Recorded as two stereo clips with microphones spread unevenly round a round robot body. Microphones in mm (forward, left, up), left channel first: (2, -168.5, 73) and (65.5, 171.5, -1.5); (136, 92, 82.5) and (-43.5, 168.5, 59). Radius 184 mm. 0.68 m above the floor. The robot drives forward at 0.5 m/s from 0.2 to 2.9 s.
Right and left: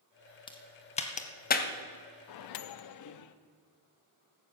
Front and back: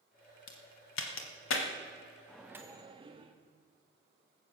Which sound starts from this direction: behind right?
A microwave, at 2.3 s.